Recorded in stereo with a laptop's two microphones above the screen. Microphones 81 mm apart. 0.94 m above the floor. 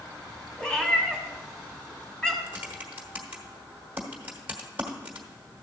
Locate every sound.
0.6 s a cat meowing: 10° left (ahead or behind), 1.7 m
2.5 s typing on a keyboard: 20° right (ahead or behind), 1.2 m